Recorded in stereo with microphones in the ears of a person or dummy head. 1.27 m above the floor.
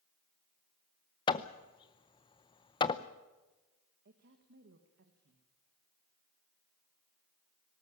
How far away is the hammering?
About 0.7 m.